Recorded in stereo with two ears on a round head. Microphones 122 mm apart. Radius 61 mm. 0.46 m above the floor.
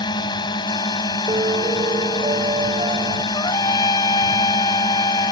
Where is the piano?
35° right (ahead or behind).